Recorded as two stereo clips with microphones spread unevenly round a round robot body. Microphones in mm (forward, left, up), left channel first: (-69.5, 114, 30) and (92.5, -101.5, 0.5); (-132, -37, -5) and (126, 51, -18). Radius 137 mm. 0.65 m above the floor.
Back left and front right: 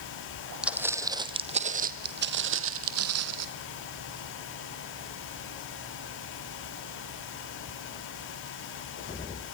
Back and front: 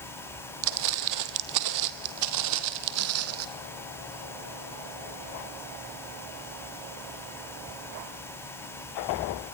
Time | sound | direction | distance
0.6 | footsteps | 35° left | 1.6 m